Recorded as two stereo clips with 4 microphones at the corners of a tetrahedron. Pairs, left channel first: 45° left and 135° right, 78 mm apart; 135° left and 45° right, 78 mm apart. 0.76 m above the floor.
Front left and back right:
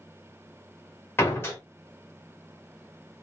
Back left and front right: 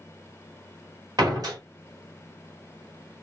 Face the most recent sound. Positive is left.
turn(degrees=-10)